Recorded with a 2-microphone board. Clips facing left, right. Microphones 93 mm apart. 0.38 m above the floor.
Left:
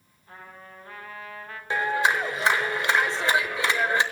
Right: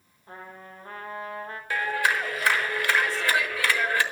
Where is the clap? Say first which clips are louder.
Left 2 dB; 25° left (ahead or behind), 1.2 m.